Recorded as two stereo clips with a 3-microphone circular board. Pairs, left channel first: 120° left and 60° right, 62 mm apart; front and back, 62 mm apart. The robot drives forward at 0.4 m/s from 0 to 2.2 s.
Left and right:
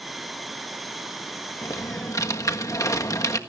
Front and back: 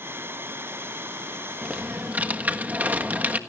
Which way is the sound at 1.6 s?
110° left.